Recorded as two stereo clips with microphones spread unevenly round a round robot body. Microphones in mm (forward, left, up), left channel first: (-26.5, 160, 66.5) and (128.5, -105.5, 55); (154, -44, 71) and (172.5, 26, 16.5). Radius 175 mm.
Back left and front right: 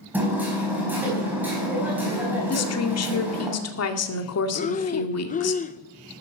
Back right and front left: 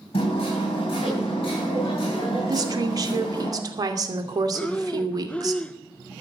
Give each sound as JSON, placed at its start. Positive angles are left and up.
{"t": 0.1, "sound": "hammering", "azimuth_deg": -145, "distance_m": 4.5}
{"t": 2.5, "sound": "a woman speaking", "azimuth_deg": 80, "distance_m": 2.5}
{"t": 4.5, "sound": "breathing", "azimuth_deg": 85, "distance_m": 0.5}